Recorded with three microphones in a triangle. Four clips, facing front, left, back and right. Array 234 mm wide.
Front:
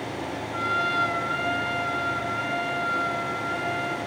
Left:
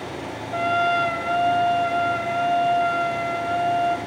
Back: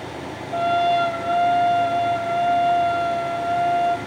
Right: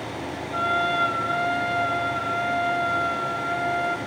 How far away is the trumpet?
About 2.5 m.